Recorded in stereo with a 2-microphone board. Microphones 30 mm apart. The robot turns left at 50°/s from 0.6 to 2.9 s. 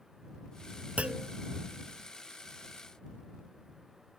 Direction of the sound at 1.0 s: 55° right (ahead or behind).